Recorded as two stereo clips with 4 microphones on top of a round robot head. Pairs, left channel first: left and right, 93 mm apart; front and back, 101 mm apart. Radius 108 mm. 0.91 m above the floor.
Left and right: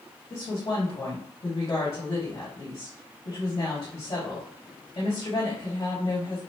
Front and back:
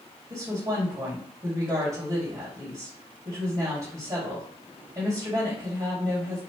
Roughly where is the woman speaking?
Behind left.